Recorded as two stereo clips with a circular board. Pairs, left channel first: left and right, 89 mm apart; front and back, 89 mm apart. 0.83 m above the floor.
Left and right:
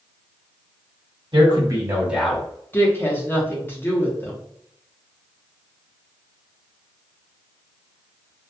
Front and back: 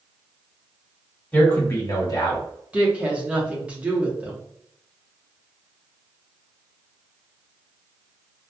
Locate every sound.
1.3 s a man speaking: 70° right, 1.5 m; by 2.5 s 15° left, 1.1 m
2.7 s a woman speaking: 120° left, 0.9 m